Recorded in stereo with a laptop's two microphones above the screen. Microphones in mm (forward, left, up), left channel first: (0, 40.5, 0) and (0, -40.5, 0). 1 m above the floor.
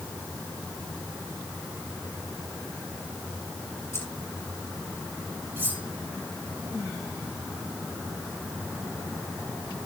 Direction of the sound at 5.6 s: 25° right (ahead or behind).